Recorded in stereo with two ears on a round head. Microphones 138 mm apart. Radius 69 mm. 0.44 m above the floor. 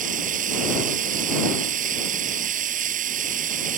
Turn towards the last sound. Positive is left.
turn(degrees=-55)  # may be behind; listen again after turning